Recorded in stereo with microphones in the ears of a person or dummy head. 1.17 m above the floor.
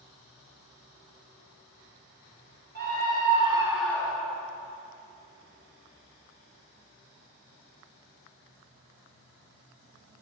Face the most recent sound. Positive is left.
turn(degrees=45)  # may be behind; listen again after turning